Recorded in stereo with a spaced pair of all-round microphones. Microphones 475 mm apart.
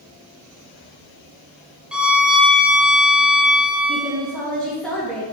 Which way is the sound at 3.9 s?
Centre (ahead or behind).